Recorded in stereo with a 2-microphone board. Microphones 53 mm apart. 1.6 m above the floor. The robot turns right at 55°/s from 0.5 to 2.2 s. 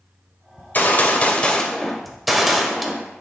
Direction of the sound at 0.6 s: 95° left.